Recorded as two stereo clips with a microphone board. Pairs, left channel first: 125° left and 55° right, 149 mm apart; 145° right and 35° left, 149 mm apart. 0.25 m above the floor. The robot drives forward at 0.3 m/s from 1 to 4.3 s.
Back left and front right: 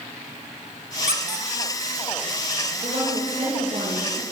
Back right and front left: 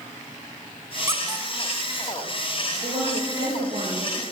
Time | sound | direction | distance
1.1 | a squeak | 30° right | 1.6 m
2.8 | a woman speaking | 20° right | 6 m